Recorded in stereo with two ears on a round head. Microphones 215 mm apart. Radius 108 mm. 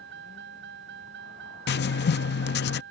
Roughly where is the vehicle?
Right.